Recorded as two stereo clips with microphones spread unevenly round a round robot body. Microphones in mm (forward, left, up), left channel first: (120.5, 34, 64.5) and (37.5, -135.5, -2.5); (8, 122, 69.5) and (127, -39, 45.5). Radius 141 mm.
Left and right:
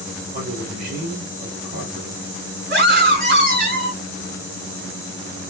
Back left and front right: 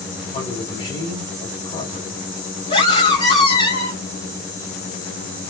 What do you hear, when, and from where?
0.3 s a man speaking: 165° right, 5 m
2.7 s a scream: 165° right, 6 m